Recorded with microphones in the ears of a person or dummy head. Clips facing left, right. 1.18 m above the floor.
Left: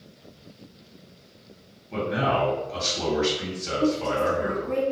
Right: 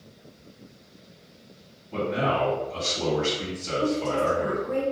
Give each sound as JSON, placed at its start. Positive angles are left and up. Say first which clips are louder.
{"t": 1.9, "sound": "a man speaking", "louder": "left 1 dB", "side_deg": 70, "distance_m": 1.5}
{"t": 3.8, "sound": "a woman speaking", "louder": "left 2 dB", "side_deg": 35, "distance_m": 1.5}